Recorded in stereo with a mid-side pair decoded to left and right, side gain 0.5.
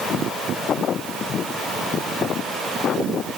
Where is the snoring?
I don't hear snoring.